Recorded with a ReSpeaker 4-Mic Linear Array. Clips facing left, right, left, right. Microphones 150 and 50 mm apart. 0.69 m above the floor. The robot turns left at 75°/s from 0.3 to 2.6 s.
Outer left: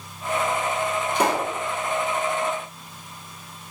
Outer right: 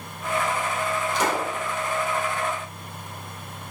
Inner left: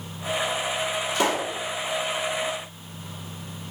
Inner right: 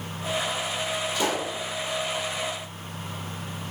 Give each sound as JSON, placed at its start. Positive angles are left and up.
{"t": 1.1, "sound": "a pop", "azimuth_deg": 100, "distance_m": 1.5}